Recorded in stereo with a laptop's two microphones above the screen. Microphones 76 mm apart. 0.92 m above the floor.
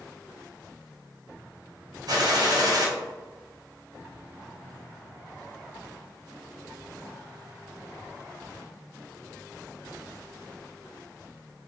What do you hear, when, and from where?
2.1 s a gunshot: 60° right (ahead or behind), 0.6 m